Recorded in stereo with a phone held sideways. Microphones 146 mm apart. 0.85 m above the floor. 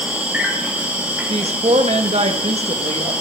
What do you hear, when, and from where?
0.0 s an insect: 10° right (ahead or behind), 1.1 m
1.3 s a woman speaking: 50° right (ahead or behind), 0.8 m